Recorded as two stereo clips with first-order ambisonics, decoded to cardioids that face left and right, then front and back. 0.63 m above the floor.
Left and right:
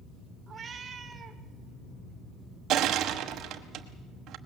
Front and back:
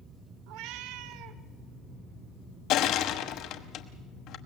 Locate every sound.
0.5 s a cat meowing: 160° right, 1.0 m
2.7 s crushing: 40° right, 1.0 m